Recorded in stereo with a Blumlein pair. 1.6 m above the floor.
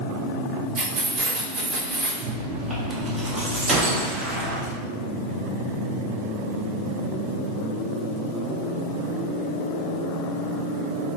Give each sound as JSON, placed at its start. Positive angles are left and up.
{"t": 0.8, "sound": "keys jangling", "azimuth_deg": -30, "distance_m": 1.4}
{"t": 2.2, "sound": "chewing", "azimuth_deg": -15, "distance_m": 1.0}
{"t": 3.7, "sound": "a gunshot", "azimuth_deg": -20, "distance_m": 0.9}